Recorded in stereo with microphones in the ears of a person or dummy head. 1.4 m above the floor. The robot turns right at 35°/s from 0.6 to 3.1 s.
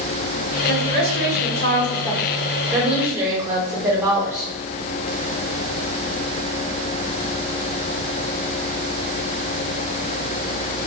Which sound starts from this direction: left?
A woman speaking, at 0.7 s.